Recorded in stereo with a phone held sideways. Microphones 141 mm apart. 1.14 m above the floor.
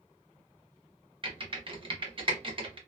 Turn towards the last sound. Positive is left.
turn(degrees=-35)  # may be behind; listen again after turning